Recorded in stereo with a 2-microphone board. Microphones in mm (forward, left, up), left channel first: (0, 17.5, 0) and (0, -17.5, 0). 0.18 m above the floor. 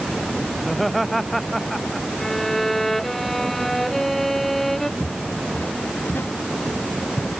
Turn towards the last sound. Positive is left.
turn(degrees=70)  # may be behind; listen again after turning